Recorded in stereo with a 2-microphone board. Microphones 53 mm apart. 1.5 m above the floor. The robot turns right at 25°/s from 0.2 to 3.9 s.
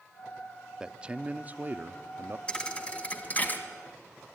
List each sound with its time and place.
0.8 s a man speaking: 165° right, 0.6 m; by 2.4 s 125° right, 0.6 m
2.5 s a thud: 20° left (ahead or behind), 1.7 m; by 3.6 s 35° left (ahead or behind), 1.7 m